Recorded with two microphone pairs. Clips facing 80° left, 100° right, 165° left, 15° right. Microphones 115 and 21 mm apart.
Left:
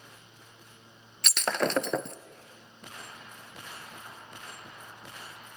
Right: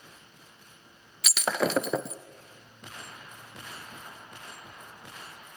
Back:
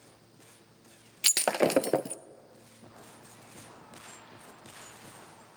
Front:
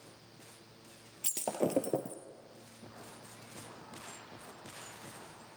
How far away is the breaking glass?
About 0.7 m.